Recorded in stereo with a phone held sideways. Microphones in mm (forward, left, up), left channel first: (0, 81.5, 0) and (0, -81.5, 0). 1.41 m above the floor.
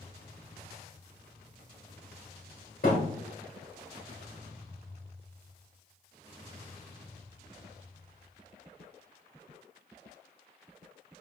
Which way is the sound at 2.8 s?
60° left (ahead or behind).